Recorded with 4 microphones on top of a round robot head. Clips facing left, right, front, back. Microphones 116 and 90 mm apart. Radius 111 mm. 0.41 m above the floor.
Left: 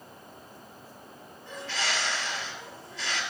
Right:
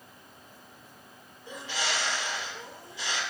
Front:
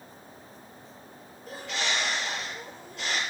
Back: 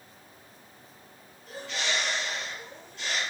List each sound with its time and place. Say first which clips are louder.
1.5 s a bird: even, front 1 dB; 15° right, 8 m